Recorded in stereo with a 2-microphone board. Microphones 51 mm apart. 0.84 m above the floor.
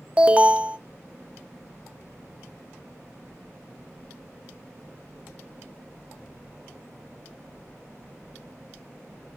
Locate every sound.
0.2 s an alarm: 20° right (ahead or behind), 0.9 m